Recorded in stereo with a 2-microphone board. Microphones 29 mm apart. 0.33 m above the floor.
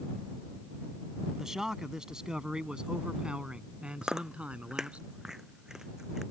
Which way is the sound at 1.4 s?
15° right (ahead or behind).